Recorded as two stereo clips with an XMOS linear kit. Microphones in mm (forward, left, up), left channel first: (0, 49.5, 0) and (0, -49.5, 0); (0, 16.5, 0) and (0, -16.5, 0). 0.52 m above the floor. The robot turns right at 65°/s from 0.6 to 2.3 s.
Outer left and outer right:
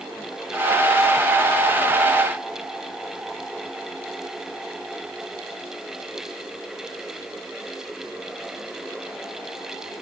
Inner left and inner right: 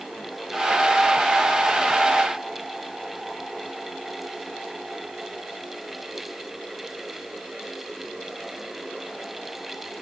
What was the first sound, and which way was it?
Only background noise.